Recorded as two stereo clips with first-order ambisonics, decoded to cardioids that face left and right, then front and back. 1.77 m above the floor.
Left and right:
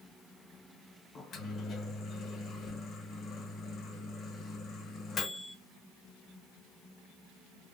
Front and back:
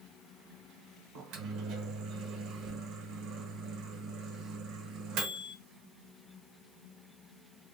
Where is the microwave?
150° left, 1.0 m.